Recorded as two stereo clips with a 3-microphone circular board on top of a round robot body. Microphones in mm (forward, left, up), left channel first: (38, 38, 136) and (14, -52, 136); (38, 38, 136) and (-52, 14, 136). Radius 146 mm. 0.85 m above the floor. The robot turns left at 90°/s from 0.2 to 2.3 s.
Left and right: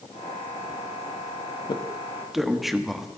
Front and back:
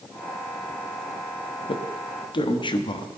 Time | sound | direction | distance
1.7 | a man speaking | 40° left | 1.4 m